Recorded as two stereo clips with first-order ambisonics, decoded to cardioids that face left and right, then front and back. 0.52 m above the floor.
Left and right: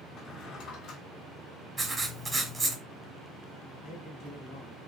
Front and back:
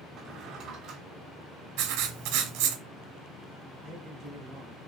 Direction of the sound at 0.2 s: 130° left.